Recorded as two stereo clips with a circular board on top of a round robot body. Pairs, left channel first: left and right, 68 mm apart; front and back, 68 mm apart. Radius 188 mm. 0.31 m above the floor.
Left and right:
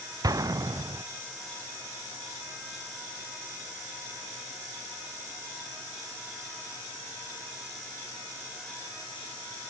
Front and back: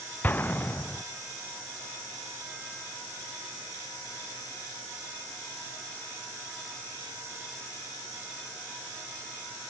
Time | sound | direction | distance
0.2 | an explosion | 65° right | 0.5 m